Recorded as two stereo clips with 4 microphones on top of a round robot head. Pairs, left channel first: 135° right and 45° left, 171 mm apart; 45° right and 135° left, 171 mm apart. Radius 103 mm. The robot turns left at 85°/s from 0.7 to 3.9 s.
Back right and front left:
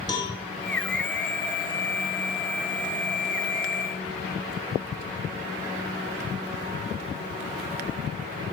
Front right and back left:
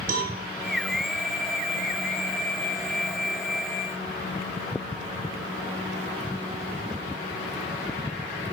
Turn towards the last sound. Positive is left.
turn(degrees=-110)